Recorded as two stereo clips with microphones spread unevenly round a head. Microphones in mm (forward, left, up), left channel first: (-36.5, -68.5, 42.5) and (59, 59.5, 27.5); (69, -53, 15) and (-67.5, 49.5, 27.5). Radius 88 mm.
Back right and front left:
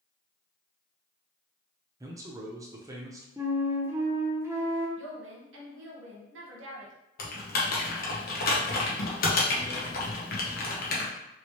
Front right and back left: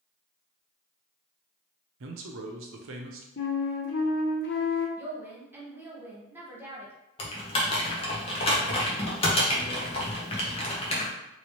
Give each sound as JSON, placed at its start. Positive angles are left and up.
{"t": 2.0, "sound": "a man speaking", "azimuth_deg": 125, "distance_m": 0.7}
{"t": 3.4, "sound": "a flute", "azimuth_deg": -25, "distance_m": 0.6}
{"t": 5.0, "sound": "a woman speaking", "azimuth_deg": 65, "distance_m": 1.1}
{"t": 7.2, "sound": "typing on a keyboard", "azimuth_deg": -100, "distance_m": 0.8}